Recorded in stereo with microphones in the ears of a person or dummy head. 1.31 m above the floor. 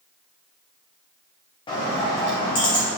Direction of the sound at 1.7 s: 20° left (ahead or behind).